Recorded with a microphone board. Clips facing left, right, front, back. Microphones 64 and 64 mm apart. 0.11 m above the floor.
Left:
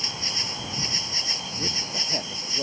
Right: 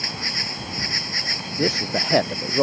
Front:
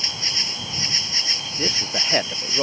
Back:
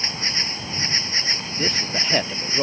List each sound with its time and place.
0.0 s an insect: 125° right
1.6 s a man speaking: 85° right